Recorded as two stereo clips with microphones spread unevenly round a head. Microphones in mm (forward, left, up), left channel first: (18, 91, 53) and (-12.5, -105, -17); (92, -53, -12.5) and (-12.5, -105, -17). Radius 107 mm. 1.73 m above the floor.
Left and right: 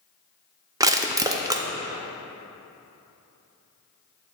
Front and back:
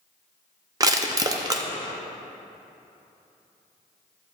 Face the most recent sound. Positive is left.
turn(degrees=165)